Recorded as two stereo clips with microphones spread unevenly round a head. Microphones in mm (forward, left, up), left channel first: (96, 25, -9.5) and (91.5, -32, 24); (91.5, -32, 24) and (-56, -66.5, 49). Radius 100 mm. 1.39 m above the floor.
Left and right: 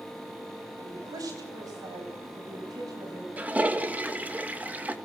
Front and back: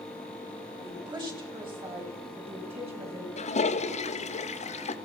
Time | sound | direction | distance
0.8 | a woman speaking | 105° right | 8 m
3.4 | a toilet flushing | 30° right | 1.9 m